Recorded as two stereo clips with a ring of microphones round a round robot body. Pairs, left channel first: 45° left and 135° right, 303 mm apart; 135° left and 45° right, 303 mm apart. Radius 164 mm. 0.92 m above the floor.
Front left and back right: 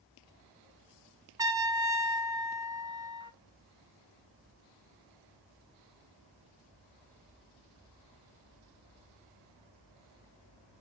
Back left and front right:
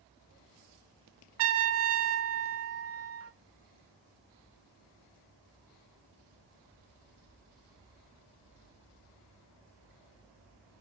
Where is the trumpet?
60° right, 0.6 m.